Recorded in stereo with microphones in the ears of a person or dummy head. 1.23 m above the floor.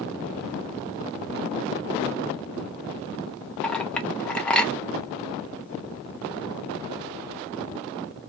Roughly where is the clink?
Centre.